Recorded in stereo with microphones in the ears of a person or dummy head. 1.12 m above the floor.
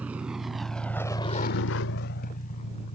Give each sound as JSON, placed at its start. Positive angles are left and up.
{"t": 0.0, "sound": "a vehicle", "side_deg": -10}